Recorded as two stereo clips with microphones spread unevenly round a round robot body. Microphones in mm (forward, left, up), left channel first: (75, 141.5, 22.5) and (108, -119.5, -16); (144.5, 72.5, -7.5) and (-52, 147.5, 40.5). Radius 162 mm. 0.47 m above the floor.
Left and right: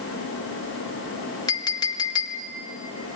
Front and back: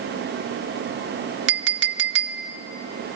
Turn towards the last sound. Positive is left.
turn(degrees=180)